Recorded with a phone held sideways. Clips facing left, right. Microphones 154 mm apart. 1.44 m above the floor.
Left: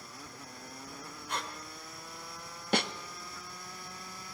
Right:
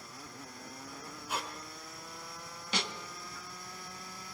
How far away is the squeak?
About 2.5 m.